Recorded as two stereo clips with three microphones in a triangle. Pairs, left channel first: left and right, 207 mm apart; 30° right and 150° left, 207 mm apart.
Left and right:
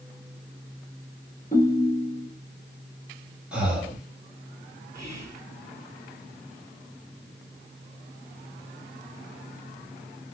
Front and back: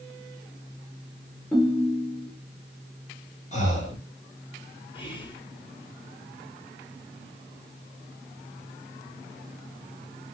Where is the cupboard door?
No cupboard door in this recording.